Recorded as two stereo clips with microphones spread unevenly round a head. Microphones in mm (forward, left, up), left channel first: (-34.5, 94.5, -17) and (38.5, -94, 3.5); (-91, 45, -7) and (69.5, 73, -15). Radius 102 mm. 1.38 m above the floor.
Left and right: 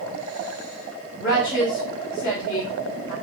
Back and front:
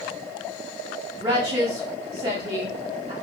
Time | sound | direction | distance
1.2 | a woman speaking | 65° left | 0.9 m